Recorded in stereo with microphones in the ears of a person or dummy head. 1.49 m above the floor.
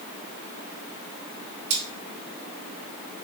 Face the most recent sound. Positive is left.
turn(degrees=-60)  # may be behind; listen again after turning